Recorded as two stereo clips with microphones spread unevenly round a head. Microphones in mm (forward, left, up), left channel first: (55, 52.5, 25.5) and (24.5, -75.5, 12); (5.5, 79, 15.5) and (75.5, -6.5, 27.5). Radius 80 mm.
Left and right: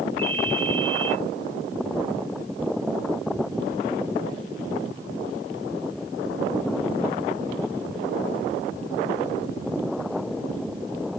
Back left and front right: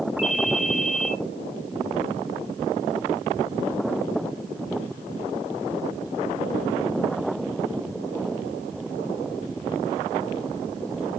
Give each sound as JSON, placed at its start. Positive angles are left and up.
{"t": 0.2, "sound": "a ringtone", "azimuth_deg": 95, "distance_m": 1.5}